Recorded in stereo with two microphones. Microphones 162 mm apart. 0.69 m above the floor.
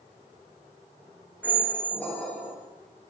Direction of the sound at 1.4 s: 10° left (ahead or behind).